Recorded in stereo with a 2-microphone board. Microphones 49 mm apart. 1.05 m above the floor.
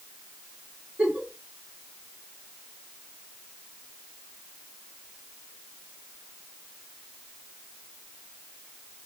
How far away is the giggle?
About 2 m.